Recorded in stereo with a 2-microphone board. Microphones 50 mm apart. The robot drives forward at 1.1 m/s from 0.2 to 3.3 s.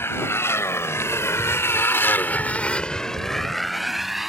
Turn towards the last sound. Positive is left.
turn(degrees=-5)  # may be behind; listen again after turning